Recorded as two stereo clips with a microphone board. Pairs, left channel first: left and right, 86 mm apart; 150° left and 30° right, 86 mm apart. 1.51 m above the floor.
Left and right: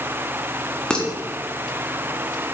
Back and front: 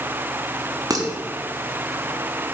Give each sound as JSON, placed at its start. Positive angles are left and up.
{"t": 0.9, "sound": "dishes clattering", "azimuth_deg": 10, "distance_m": 1.7}